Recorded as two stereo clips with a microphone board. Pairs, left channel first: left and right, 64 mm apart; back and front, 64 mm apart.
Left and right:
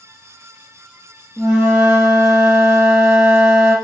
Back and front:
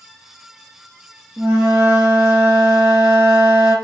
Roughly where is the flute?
Ahead right.